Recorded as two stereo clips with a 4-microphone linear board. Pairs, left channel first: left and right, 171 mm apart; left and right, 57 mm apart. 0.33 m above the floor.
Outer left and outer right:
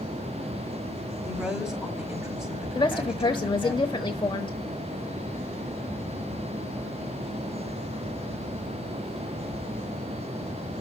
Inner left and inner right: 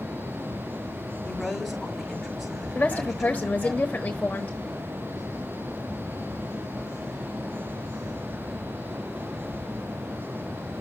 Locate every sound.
1.2 s a woman speaking: 5° right (ahead or behind), 5.5 m
2.8 s a woman speaking: 30° left (ahead or behind), 1.0 m